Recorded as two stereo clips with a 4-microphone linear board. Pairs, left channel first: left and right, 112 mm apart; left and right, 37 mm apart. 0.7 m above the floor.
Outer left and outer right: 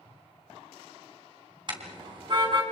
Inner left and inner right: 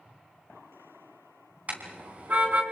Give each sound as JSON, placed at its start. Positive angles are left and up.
{"t": 1.7, "sound": "a car horn", "side_deg": -45, "distance_m": 3.5}